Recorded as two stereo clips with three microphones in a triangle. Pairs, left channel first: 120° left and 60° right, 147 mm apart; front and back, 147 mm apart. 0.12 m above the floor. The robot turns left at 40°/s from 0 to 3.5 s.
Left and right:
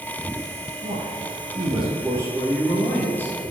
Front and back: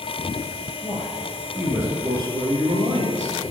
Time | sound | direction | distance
0.8 | a man speaking | 70° right | 3 m